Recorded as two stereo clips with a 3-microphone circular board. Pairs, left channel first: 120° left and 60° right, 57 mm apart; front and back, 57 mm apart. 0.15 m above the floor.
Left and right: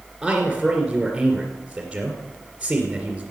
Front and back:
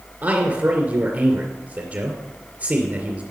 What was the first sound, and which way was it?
A man speaking, 140° right.